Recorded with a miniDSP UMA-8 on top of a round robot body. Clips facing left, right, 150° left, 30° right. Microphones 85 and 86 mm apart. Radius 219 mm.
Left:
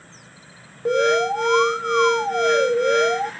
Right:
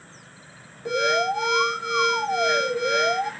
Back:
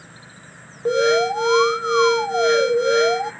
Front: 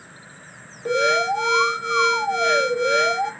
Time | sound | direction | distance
0.8 | an alarm | 100° left | 2.5 m